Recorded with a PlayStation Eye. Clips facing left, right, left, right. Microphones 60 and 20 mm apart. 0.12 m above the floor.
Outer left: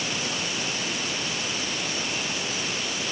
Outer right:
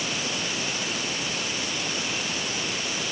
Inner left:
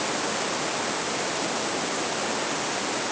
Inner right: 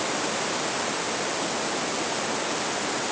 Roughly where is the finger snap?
No finger snap in this recording.